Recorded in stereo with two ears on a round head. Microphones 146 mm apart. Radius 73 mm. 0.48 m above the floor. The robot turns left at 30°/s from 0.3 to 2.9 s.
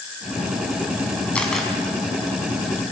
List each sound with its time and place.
1.4 s a camera shutter: 10° left (ahead or behind), 4.5 m; by 1.7 s centre (ahead or behind), 4.5 m